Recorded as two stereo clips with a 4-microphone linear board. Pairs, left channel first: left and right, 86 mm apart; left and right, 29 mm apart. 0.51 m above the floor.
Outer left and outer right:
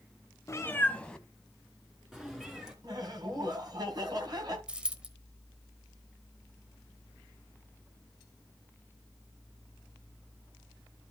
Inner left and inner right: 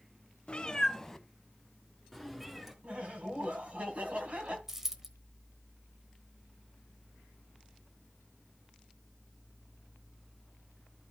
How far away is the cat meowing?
About 0.6 m.